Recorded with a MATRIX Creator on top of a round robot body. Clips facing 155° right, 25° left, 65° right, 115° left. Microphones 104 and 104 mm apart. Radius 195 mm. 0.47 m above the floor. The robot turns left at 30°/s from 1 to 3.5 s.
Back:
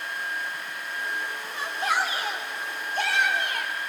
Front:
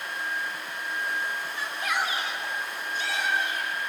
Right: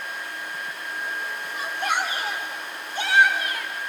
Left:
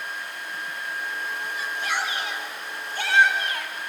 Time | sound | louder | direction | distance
1.5 | a shout | back 5 dB, right 4 dB | 95° right | 2.5 m